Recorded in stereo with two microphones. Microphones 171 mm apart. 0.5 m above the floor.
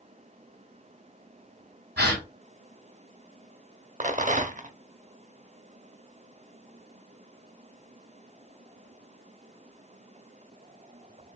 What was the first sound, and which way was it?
A gasp, 70° right (ahead or behind).